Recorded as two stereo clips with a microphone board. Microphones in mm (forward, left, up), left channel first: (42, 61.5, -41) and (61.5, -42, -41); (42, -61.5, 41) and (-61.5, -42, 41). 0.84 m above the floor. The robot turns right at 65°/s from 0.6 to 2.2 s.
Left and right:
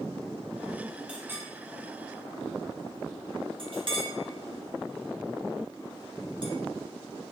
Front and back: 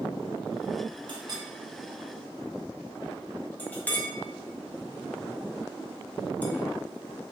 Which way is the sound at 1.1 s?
155° right.